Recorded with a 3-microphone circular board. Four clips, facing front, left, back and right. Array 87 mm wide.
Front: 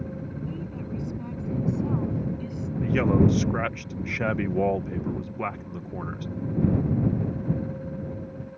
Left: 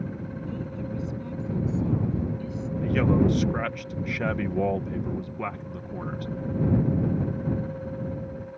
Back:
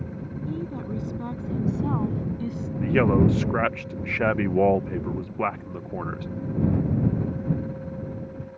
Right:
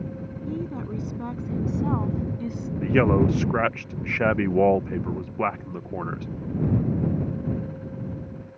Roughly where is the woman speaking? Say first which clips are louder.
Right 5 dB, back 3 dB; behind right.